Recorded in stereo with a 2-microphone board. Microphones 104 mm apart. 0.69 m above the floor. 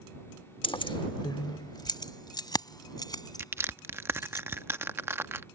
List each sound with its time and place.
0.6 s keys jangling: 55° left (ahead or behind); by 4.4 s 40° left (ahead or behind)
3.4 s crushing: 25° right (ahead or behind)